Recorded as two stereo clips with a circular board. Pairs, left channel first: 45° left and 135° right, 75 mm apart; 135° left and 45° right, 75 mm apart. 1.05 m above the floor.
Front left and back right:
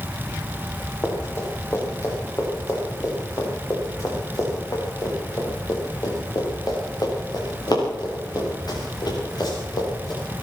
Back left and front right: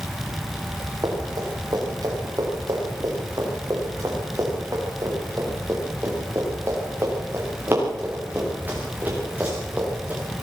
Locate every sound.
1.0 s running footsteps: 10° right, 8 m; by 10.4 s 25° left, 9.5 m